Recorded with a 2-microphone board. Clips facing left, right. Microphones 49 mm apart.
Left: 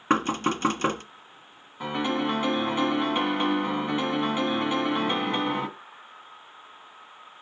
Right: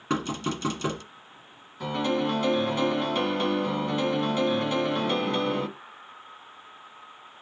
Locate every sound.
0.1 s knocking: 40° left (ahead or behind), 1.4 m
1.8 s a piano: 20° left (ahead or behind), 1.7 m